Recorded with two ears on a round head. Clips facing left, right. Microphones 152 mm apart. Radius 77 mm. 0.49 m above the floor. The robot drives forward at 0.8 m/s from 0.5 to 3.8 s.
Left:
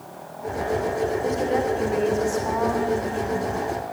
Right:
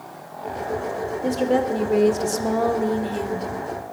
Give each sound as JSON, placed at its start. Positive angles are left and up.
{"t": 1.2, "sound": "a woman speaking", "side_deg": -35, "distance_m": 1.8}